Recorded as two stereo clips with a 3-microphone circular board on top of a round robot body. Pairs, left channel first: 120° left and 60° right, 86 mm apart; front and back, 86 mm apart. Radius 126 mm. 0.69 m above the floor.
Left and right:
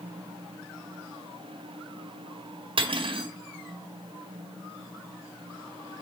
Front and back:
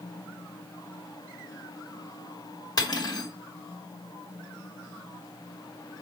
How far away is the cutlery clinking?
About 1.8 m.